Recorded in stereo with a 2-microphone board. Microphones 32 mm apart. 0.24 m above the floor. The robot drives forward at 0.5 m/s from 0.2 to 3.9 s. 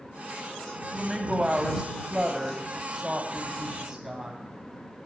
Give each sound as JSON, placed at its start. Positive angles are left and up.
{"t": 0.8, "sound": "a woman speaking", "side_deg": -20, "distance_m": 1.3}